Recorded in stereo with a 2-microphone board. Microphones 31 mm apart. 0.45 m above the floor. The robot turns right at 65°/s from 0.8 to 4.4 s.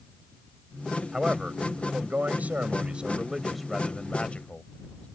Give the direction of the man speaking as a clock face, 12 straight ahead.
5 o'clock.